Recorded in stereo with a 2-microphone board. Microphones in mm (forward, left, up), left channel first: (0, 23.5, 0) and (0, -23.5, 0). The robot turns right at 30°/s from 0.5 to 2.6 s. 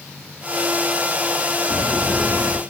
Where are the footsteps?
45° left (ahead or behind), 4 m; by 2.6 s 20° left (ahead or behind), 4 m.